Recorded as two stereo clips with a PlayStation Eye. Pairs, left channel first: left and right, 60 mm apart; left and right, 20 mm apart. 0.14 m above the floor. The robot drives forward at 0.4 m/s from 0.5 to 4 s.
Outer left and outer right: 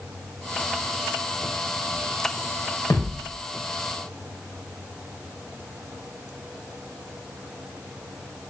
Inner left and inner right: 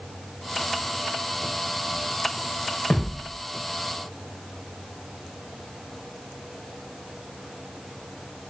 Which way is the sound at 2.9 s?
60° left (ahead or behind).